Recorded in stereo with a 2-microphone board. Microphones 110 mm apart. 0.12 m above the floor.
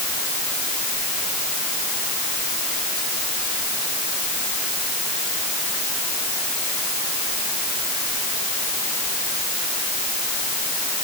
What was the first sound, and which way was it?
Only background noise.